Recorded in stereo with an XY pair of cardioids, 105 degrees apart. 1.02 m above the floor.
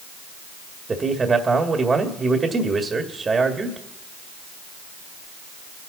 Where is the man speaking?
30° right, 1.9 m.